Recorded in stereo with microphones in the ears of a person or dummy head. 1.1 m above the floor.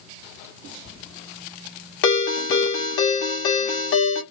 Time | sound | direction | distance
2.0 | a ringtone | 65° left (ahead or behind) | 1.1 m